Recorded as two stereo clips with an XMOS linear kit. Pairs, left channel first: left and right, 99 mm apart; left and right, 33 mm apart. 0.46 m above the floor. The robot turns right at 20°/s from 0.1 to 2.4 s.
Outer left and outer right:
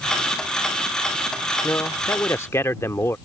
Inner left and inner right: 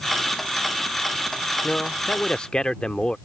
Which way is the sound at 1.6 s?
25° left (ahead or behind).